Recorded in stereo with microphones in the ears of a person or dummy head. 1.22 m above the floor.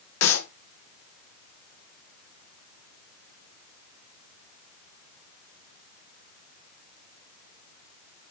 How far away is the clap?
About 1.9 m.